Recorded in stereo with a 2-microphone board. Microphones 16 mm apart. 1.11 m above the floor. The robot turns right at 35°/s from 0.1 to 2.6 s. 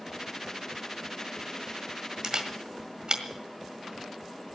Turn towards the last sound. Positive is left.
turn(degrees=-55)  # may be behind; listen again after turning